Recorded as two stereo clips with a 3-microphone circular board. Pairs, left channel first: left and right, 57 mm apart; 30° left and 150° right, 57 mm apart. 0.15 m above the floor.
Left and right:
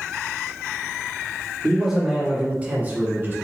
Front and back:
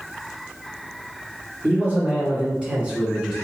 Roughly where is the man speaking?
Behind.